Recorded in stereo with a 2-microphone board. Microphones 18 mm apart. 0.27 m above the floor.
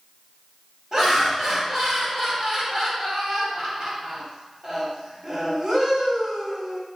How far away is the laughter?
About 1.2 m.